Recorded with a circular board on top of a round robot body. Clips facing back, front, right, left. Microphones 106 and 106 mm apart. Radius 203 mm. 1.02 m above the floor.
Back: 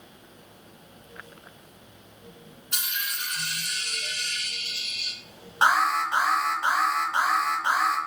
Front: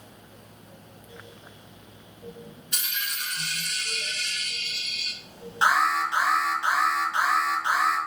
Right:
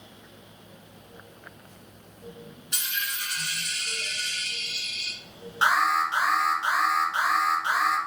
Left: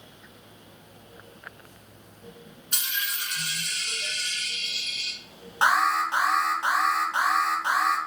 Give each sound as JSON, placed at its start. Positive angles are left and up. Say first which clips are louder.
{"t": 2.7, "sound": "a dropped coin", "louder": "back 1 dB, left 1 dB", "azimuth_deg": 145, "distance_m": 2.0}
{"t": 5.6, "sound": "an alarm", "louder": "even, left 1 dB", "azimuth_deg": 140, "distance_m": 1.3}